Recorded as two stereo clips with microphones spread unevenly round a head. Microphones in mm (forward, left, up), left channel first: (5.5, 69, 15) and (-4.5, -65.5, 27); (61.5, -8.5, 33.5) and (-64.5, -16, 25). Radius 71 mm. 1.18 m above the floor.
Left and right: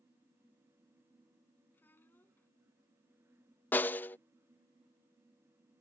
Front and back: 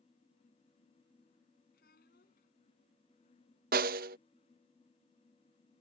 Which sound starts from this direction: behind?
A snare drum, at 3.7 s.